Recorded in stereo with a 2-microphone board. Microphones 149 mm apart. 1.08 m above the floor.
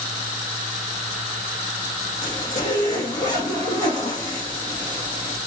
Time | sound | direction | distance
2.2 | a zipper | 25° left (ahead or behind) | 2 m